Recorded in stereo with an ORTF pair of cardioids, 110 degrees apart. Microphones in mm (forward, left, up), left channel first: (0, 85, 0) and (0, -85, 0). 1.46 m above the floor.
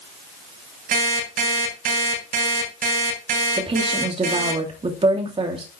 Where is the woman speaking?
35° right, 3 m.